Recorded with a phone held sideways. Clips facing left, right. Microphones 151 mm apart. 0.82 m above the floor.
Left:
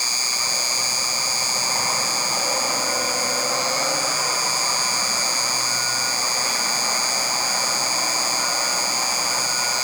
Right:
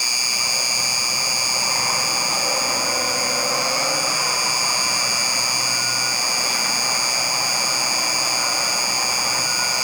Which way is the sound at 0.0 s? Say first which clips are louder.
Even; 10° right (ahead or behind).